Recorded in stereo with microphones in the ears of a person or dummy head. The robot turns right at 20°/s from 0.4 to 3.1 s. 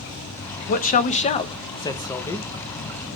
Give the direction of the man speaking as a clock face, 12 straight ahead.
8 o'clock.